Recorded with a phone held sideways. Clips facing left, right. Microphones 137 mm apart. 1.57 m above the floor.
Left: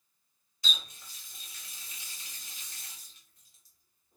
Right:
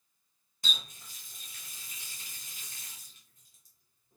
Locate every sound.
0.6 s a running tap: 45° right (ahead or behind), 1.1 m